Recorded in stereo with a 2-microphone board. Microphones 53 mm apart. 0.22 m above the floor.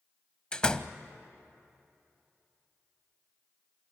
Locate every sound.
0.5 s a door slam: 15° left (ahead or behind), 0.7 m